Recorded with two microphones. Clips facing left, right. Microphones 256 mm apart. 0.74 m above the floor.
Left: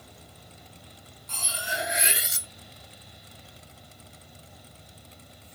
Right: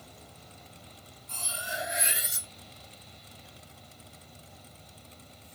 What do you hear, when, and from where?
1.3 s cutlery clinking: 75° left (ahead or behind), 0.8 m